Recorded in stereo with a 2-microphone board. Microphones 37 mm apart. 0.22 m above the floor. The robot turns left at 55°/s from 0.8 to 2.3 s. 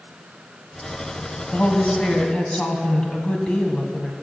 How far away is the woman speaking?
About 1.4 m.